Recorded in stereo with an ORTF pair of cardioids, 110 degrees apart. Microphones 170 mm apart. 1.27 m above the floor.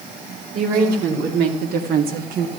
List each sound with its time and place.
0.5 s a woman speaking: 70° right, 3.5 m; by 2.5 s 55° right, 1.1 m